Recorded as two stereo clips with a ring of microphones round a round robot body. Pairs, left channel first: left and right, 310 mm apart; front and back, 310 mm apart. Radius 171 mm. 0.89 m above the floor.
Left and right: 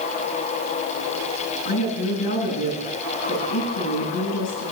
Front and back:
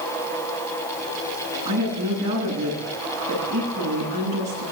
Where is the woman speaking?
100° left, 10 m.